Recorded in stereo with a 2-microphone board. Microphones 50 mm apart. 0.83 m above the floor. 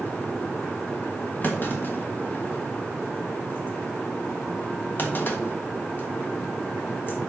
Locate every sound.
1.4 s a clunk: 40° left (ahead or behind), 1.3 m